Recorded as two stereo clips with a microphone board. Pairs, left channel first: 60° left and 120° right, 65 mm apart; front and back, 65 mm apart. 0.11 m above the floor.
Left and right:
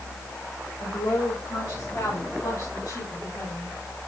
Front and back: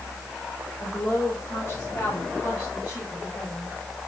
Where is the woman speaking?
45° left, 7 m; by 3.7 s 65° left, 8.5 m.